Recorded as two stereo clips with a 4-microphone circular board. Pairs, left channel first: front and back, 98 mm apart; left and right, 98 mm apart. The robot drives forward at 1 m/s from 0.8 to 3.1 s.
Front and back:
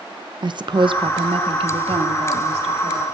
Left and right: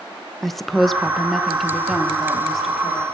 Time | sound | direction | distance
0.4 | a woman speaking | straight behind | 0.5 m